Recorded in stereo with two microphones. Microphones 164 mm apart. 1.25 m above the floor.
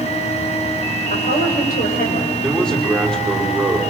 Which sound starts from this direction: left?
A woman speaking, at 1.1 s.